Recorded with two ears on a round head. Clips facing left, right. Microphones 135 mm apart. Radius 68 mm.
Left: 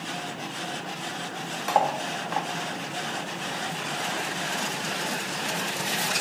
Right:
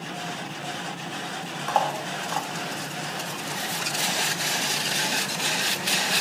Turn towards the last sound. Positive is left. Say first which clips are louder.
# left 1 dB
turn(degrees=10)  # may be behind; listen again after turning